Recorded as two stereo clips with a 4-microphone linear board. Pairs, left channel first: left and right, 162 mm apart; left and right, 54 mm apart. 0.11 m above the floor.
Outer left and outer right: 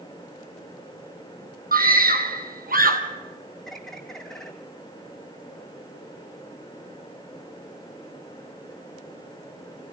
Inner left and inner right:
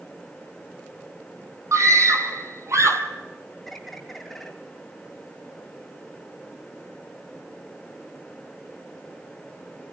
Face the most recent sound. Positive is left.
turn(degrees=0)  # may be behind; listen again after turning